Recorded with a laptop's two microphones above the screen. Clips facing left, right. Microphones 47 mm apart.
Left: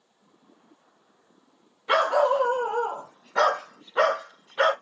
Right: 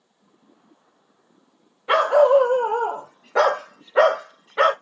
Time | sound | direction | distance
1.9 | a dog barking | 20° right (ahead or behind) | 1.6 m